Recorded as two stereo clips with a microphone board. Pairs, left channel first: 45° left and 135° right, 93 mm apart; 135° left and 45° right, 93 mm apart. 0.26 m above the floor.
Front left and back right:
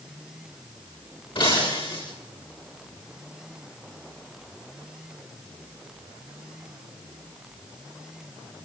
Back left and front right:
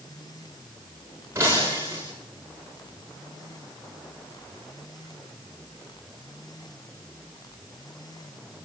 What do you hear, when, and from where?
1.4 s breaking glass: 15° left, 10 m